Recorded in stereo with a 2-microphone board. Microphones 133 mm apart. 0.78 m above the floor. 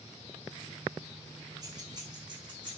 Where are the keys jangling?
30° right (ahead or behind), 1.8 m; by 2.8 s 40° right (ahead or behind), 3 m.